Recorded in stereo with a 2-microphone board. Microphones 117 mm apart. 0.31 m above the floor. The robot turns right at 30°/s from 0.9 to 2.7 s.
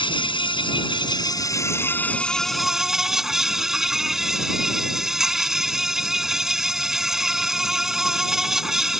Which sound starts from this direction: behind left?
An insect, at 0.0 s.